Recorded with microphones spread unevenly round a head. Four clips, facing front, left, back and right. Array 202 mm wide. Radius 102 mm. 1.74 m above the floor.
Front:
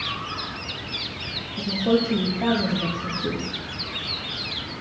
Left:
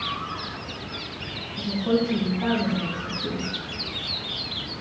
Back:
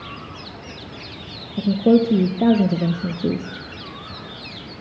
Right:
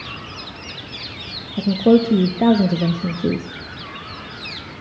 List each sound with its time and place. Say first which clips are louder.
1.6 s a woman speaking: right 9 dB, back 6 dB; 135° right, 0.6 m